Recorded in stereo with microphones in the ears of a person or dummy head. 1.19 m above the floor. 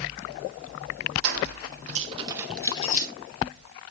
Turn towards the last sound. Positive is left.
turn(degrees=50)  # may be behind; listen again after turning